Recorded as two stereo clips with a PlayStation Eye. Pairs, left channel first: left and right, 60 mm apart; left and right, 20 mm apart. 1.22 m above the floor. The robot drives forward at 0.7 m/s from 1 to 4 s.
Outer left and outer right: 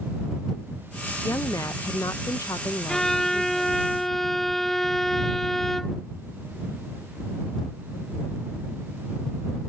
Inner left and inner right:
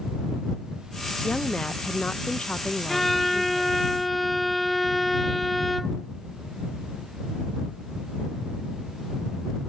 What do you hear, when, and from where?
1.2 s a woman speaking: 55° left (ahead or behind); by 3.9 s 40° left (ahead or behind)
2.9 s a violin: 10° left (ahead or behind); by 6.1 s 5° left (ahead or behind)